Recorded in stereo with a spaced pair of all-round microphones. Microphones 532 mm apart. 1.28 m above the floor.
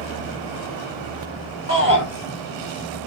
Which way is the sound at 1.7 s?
25° left (ahead or behind).